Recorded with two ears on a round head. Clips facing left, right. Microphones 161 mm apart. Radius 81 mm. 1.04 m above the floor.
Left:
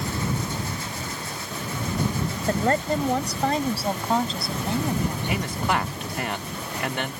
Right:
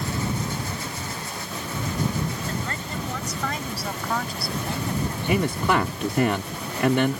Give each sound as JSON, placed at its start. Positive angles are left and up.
{"t": 2.5, "sound": "a woman speaking", "side_deg": 40}
{"t": 5.3, "sound": "a man speaking", "side_deg": -80}